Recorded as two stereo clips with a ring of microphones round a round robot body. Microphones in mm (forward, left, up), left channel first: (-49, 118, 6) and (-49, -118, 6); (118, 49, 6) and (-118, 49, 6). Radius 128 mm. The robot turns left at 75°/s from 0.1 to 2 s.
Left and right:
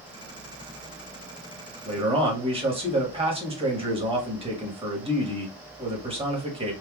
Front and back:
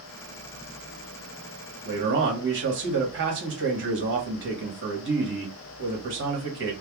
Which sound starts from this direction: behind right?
A man speaking, at 1.9 s.